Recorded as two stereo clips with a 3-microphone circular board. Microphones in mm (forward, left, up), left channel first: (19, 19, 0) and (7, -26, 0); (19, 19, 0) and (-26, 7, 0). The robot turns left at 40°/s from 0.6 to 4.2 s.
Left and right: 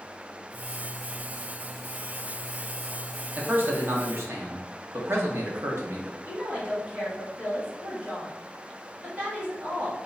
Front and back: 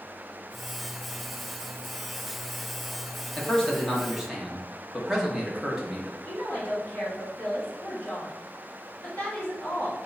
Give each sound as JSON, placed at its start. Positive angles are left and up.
{"t": 3.4, "sound": "a man speaking", "azimuth_deg": -50, "distance_m": 1.2}
{"t": 6.2, "sound": "a woman speaking", "azimuth_deg": -45, "distance_m": 2.0}